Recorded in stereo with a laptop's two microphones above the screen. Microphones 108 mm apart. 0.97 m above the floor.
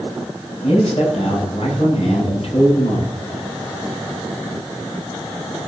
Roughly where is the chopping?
No chopping in this recording.